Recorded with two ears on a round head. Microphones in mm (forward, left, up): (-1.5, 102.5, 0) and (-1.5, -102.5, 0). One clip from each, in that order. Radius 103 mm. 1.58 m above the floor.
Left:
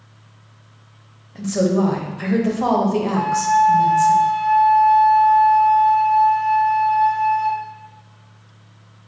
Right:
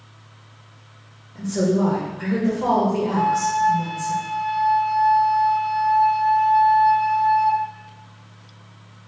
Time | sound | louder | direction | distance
1.4 | a woman speaking | left 2 dB | 35° left (ahead or behind) | 0.8 m
3.1 | a flute | left 4 dB | 5° right (ahead or behind) | 1.7 m